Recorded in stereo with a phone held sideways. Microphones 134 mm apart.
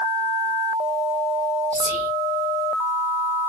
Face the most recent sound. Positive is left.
turn(degrees=-60)  # may be behind; listen again after turning